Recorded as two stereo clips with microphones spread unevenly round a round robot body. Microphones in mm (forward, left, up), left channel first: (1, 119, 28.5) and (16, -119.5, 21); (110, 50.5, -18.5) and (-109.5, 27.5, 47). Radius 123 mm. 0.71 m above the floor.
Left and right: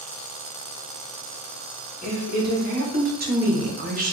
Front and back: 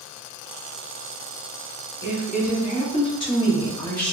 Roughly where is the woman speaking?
Ahead right.